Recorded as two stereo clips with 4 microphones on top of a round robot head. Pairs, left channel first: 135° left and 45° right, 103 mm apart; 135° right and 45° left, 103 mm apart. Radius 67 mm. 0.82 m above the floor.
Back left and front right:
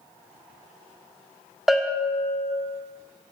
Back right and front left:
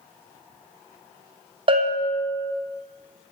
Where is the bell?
40° left, 0.8 m.